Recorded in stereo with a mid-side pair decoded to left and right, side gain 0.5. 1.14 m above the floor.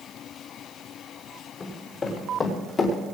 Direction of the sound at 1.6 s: 30° left.